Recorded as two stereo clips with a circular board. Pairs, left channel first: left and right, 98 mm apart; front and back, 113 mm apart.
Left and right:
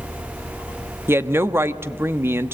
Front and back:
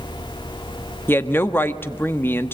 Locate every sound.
1.1 s a woman speaking: 50° right, 1.0 m